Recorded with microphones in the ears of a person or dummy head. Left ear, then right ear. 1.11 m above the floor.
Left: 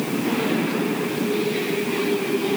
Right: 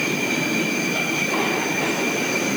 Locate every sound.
Only background noise.